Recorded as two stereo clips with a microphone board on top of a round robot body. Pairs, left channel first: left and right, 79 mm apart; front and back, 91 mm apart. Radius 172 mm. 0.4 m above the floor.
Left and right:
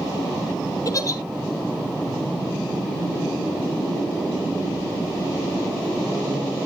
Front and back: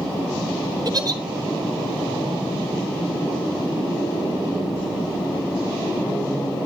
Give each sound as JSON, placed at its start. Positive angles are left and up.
{"t": 0.8, "sound": "a giggle", "azimuth_deg": 135, "distance_m": 2.0}